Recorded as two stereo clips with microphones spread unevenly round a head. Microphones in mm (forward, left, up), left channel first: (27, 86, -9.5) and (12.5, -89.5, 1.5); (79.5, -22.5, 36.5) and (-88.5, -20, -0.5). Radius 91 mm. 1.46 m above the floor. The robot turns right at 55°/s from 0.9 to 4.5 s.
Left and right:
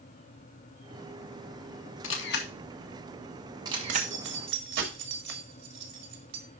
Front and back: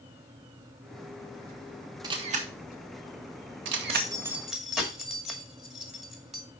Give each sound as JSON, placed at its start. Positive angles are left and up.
{"t": 2.0, "sound": "a camera shutter", "azimuth_deg": 105, "distance_m": 1.2}
{"t": 3.9, "sound": "keys jangling", "azimuth_deg": -120, "distance_m": 1.8}